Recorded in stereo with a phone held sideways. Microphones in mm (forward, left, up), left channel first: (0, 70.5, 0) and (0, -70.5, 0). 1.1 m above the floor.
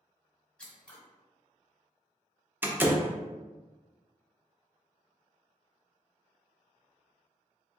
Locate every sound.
0.6 s scissors: 5° left (ahead or behind), 1.2 m
2.6 s a door slam: 15° right (ahead or behind), 0.6 m